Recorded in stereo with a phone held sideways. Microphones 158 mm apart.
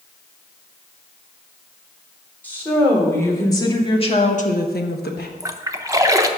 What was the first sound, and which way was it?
A woman speaking, 10° left (ahead or behind).